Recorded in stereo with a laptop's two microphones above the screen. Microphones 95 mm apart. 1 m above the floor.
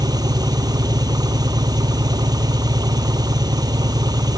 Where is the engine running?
45° right (ahead or behind).